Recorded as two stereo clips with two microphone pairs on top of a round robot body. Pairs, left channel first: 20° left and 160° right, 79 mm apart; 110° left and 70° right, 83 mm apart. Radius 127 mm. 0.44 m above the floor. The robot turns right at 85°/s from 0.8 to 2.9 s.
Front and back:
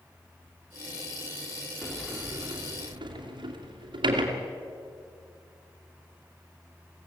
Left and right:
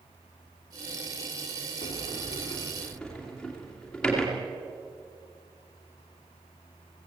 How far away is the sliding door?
About 2.5 m.